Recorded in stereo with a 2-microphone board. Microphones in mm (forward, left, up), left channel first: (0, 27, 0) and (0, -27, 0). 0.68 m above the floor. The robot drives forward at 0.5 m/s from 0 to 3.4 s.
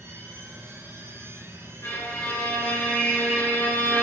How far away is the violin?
About 1.3 m.